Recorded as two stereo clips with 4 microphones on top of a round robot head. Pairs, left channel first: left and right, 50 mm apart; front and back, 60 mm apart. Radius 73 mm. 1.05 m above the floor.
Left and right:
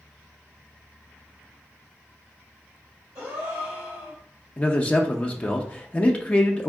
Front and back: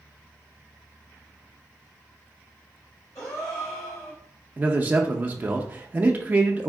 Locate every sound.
3.1 s a gasp: 55° right, 1.4 m
4.6 s a man speaking: 135° left, 0.5 m